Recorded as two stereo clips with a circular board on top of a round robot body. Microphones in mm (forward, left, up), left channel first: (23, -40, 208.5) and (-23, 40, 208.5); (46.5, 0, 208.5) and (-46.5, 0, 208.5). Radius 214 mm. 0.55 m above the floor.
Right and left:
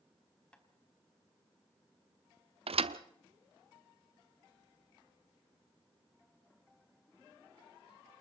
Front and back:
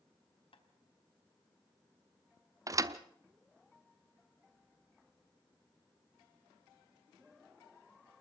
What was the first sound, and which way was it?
Tapping, 20° left.